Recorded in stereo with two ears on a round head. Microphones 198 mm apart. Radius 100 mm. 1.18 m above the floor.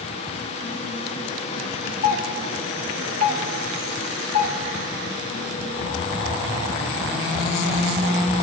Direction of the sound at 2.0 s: 70° left (ahead or behind).